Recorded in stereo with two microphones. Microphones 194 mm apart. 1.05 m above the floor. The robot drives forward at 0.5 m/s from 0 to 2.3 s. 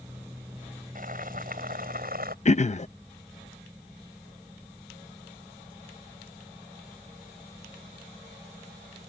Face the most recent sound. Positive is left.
turn(degrees=35)  # may be behind; listen again after turning